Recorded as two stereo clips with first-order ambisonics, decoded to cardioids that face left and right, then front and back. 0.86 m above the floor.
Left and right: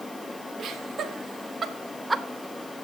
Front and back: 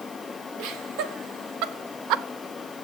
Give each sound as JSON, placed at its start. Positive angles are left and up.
{"t": 0.6, "sound": "laughter", "azimuth_deg": -155, "distance_m": 2.5}